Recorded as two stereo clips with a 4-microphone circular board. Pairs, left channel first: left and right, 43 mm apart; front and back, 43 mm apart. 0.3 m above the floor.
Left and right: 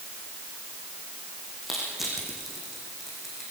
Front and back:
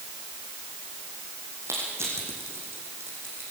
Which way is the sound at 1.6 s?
175° right.